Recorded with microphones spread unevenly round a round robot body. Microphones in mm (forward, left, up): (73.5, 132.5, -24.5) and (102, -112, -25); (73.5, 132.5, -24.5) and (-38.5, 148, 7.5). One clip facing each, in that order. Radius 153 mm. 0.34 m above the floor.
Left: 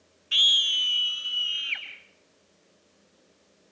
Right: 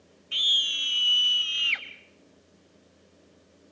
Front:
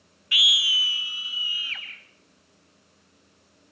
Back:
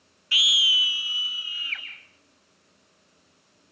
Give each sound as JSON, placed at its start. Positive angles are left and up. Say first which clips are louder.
{"t": 0.3, "sound": "a scream", "louder": "left 2 dB, even", "azimuth_deg": 130, "distance_m": 0.9}